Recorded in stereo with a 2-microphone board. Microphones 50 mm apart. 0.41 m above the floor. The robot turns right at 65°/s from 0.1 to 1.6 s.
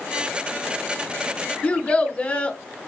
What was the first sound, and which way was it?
A child speaking, 25° left (ahead or behind).